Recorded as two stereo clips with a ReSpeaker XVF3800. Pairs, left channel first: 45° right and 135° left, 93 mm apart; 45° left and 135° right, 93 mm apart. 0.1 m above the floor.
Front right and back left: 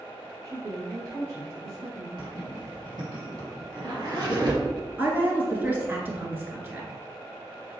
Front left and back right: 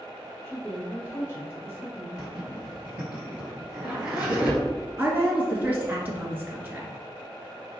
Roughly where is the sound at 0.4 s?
Left.